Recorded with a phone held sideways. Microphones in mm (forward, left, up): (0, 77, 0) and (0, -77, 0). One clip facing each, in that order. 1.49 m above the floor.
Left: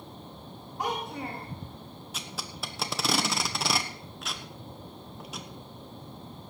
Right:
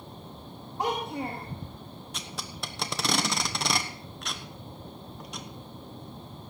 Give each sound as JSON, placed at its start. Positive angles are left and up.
{"t": 0.8, "sound": "a child speaking", "side_deg": -30, "distance_m": 2.0}
{"t": 2.1, "sound": "tape being pulled", "side_deg": 0, "distance_m": 1.1}